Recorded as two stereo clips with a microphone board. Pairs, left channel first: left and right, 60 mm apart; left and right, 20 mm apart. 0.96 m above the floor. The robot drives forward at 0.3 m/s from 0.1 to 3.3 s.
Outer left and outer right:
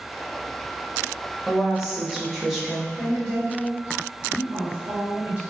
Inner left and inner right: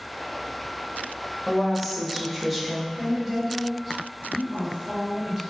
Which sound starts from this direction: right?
A woman speaking, at 3.0 s.